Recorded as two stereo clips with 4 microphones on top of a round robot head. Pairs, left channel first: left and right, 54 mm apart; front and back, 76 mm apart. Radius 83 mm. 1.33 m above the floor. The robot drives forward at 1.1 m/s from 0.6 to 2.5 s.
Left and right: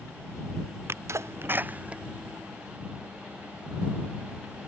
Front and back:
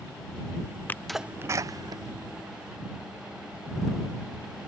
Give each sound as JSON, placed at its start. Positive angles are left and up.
{"t": 0.9, "sound": "a sneeze", "azimuth_deg": -65}